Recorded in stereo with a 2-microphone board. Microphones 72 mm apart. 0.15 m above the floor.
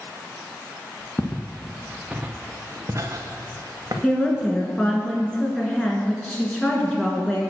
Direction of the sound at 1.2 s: 20° left (ahead or behind).